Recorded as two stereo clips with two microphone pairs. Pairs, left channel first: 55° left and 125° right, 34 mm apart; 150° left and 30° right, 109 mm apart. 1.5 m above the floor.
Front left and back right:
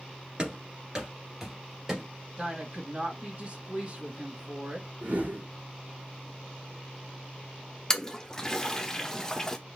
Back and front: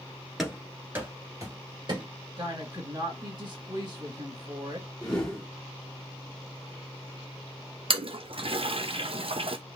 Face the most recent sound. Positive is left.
turn(degrees=-15)